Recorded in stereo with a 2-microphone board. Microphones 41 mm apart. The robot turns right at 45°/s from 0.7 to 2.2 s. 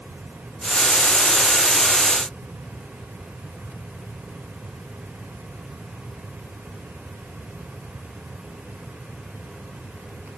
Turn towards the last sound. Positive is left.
No sound to turn to.